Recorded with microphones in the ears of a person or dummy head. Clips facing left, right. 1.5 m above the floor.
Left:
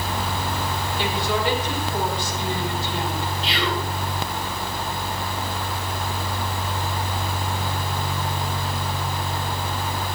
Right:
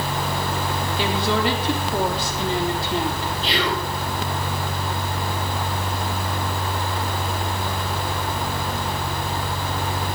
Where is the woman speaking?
60° right (ahead or behind), 4 m.